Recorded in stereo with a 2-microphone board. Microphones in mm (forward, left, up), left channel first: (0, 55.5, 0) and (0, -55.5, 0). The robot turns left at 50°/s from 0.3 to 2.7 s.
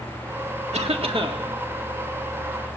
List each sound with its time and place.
0.7 s a cough: 105° right, 1.7 m; by 1.4 s 140° right, 1.7 m